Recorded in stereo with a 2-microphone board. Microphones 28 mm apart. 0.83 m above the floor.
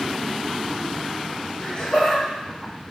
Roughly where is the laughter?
Left.